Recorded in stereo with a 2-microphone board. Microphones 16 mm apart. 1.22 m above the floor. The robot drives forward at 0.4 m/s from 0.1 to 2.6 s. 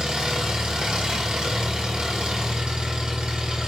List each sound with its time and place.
0.0 s an engine running: 65° right (ahead or behind), 1.7 m; by 3.7 s 75° right (ahead or behind), 1.6 m